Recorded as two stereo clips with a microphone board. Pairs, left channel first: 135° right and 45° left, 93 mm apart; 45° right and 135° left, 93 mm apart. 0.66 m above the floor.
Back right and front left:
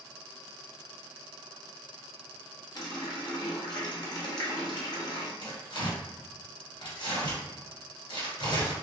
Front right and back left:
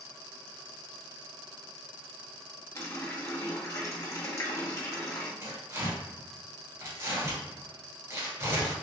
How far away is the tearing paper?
About 1.8 m.